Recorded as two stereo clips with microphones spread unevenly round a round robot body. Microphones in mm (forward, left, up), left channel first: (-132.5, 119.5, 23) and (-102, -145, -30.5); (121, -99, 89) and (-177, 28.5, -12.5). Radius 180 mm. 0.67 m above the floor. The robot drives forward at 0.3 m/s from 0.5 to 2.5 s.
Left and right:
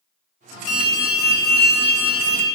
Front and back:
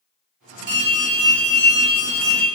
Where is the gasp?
No gasp in this recording.